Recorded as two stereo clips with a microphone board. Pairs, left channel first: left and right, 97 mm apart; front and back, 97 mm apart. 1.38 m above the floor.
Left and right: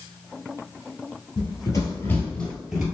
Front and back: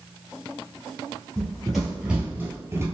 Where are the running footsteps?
85° left, 1.8 m; by 2.9 s 160° right, 1.5 m.